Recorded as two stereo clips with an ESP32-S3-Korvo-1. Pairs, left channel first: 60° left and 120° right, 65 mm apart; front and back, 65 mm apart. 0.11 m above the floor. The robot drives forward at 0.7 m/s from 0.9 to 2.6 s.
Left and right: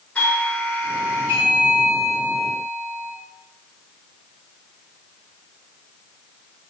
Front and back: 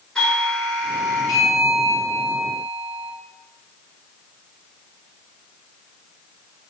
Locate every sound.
0.1 s a doorbell: 60° left, 2 m; by 3.1 s 135° left, 2 m